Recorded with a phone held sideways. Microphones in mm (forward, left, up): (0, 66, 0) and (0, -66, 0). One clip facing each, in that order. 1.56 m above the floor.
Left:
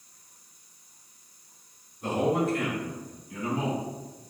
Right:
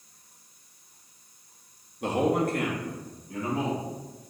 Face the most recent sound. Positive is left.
turn(degrees=-40)  # may be behind; listen again after turning